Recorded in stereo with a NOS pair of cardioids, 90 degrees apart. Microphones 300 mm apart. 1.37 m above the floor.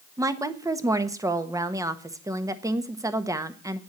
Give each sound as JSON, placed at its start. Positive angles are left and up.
{"t": 0.2, "sound": "a woman speaking", "azimuth_deg": -10, "distance_m": 1.3}